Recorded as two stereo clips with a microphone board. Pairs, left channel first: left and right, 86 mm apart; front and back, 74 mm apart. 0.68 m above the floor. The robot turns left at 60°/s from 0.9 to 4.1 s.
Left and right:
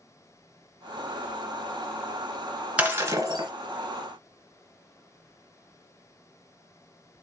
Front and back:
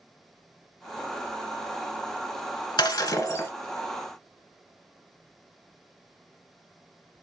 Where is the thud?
No thud in this recording.